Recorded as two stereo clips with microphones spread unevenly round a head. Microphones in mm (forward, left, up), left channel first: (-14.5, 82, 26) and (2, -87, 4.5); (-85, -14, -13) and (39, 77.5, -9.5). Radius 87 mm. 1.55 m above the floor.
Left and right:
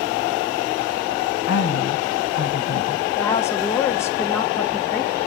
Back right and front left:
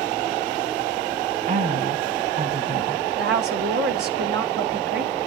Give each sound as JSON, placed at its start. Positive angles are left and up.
{"t": 1.5, "sound": "a woman speaking", "azimuth_deg": 70, "distance_m": 1.8}
{"t": 3.2, "sound": "a woman speaking", "azimuth_deg": 20, "distance_m": 1.1}